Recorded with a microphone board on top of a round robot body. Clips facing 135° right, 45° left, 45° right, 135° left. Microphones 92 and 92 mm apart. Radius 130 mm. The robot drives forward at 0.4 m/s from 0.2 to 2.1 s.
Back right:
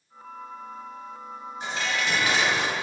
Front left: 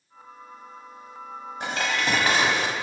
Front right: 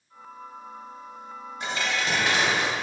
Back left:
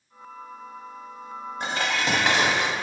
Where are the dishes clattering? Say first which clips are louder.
Front left 2 dB, back left 2 dB; 85° left, 0.7 m; by 2.7 s 100° left, 0.7 m.